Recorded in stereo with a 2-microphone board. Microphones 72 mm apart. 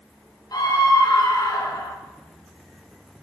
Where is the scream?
60° left (ahead or behind), 3 m.